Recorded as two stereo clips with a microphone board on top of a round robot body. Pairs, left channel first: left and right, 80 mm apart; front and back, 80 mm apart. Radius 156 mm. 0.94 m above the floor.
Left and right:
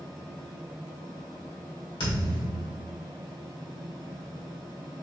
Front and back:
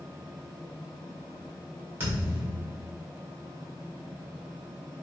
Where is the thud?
115° left, 2.0 m.